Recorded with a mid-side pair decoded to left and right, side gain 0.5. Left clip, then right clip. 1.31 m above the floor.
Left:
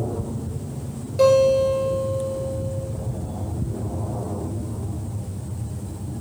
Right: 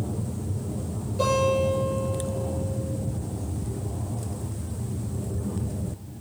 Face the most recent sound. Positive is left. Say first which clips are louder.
# left 7 dB
turn(degrees=60)